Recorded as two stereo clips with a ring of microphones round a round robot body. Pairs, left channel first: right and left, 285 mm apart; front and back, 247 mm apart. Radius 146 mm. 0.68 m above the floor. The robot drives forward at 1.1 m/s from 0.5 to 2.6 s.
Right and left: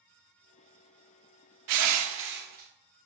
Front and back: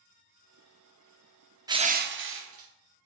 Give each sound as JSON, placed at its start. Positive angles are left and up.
{"t": 1.7, "sound": "crushing", "azimuth_deg": 105, "distance_m": 0.7}